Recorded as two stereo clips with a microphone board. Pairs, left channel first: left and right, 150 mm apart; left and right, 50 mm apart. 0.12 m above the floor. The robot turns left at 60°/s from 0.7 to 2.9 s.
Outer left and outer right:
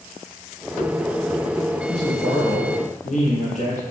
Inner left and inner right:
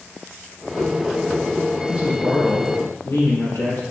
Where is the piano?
No piano in this recording.